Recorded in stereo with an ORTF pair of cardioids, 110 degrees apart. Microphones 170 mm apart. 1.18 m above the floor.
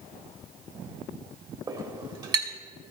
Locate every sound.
1.7 s a clink: 25° right, 2.5 m